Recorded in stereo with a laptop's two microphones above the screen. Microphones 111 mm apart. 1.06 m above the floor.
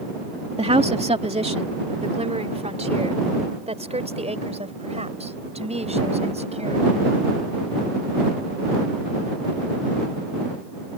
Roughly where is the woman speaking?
Right.